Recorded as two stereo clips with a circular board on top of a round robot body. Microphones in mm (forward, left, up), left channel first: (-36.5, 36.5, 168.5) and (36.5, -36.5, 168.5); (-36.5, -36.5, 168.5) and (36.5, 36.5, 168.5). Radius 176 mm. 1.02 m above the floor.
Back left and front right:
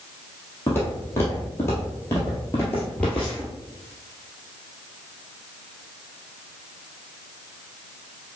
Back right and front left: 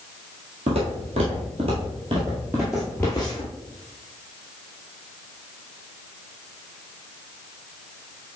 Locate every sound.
0.7 s footsteps: 65° left, 1.5 m; by 3.5 s 135° right, 1.0 m